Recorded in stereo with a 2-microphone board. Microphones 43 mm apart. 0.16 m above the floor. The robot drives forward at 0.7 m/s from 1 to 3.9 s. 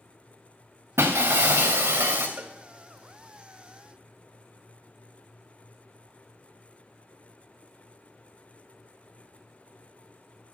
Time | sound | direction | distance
1.0 | breaking glass | 85° right | 2.5 m
2.4 | a cowbell | 35° right (ahead or behind) | 1.0 m